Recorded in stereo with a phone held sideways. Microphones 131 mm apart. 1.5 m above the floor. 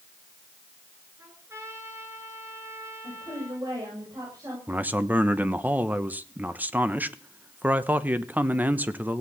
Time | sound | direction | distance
1.2 | a trumpet | 20° right (ahead or behind) | 8.5 m
3.0 | a woman speaking | 30° right (ahead or behind) | 7.5 m
4.7 | a man speaking | 15° right (ahead or behind) | 1.1 m